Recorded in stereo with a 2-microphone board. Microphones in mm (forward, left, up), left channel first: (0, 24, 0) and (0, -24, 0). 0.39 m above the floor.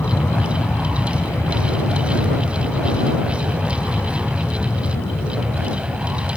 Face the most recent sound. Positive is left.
turn(degrees=65)  # may be behind; listen again after turning